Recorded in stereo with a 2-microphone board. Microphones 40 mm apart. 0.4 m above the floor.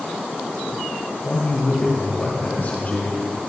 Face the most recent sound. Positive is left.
turn(degrees=30)  # may be behind; listen again after turning